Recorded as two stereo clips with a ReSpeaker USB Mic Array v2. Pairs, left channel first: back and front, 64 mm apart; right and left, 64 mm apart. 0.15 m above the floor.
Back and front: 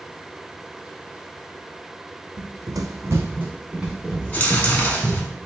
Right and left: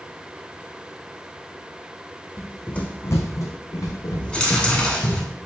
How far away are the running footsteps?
About 0.6 m.